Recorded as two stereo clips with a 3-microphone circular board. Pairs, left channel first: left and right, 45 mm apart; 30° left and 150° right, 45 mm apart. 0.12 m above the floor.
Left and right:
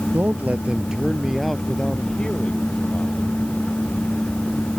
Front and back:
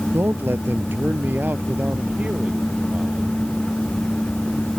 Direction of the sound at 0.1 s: 130° right.